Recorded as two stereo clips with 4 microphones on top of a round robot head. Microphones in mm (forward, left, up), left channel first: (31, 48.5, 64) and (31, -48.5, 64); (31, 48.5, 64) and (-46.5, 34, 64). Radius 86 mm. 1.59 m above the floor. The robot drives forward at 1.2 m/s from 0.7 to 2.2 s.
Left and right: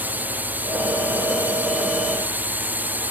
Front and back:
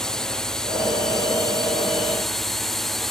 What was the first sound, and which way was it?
A drone, 60° right.